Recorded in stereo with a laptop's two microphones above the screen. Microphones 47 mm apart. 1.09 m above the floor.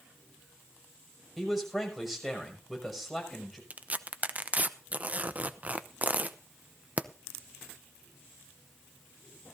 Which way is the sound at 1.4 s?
Centre (ahead or behind).